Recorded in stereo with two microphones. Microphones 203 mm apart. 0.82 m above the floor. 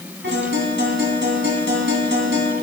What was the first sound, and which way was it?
A guitar, 75° right (ahead or behind).